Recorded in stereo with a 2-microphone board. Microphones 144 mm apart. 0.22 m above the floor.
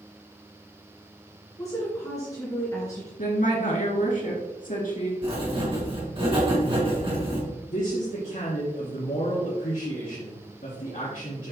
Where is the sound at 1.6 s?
25° left (ahead or behind), 2.5 m.